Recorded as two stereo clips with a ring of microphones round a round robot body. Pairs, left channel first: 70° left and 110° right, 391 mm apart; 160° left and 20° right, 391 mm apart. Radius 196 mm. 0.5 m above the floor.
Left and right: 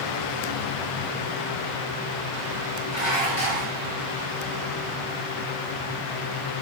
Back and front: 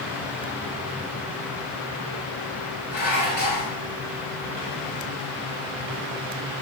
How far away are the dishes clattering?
About 5.5 m.